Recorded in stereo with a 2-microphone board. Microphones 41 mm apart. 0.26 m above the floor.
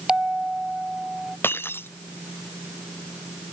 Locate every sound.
0.1 s a bell: 20° right (ahead or behind)
1.4 s breaking glass: 65° left (ahead or behind)